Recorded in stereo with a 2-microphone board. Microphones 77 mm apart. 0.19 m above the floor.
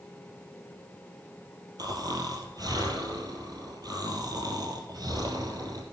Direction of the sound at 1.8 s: 55° right (ahead or behind).